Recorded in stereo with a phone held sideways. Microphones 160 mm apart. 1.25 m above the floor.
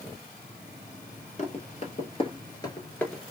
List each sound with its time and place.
1.4 s running footsteps: 45° left (ahead or behind), 1.8 m; by 3.2 s 5° left (ahead or behind), 1.2 m